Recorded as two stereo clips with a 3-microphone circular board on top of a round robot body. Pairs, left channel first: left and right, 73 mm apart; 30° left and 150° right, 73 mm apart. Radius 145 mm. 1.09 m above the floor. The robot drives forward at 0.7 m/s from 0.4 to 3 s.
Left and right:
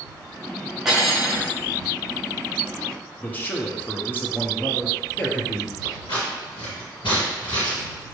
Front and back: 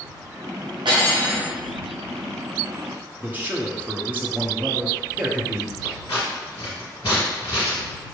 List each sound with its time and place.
0.8 s cutlery clinking: 175° right, 1.3 m
3.2 s a man speaking: 145° left, 1.0 m
5.8 s scissors: 75° left, 1.6 m